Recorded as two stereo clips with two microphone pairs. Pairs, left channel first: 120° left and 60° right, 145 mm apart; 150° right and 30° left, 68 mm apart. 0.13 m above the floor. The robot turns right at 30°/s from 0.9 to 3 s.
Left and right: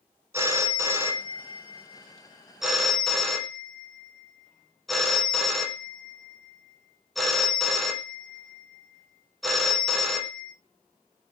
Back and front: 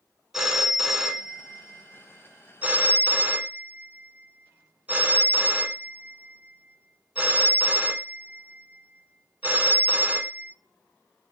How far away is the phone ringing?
About 0.6 m.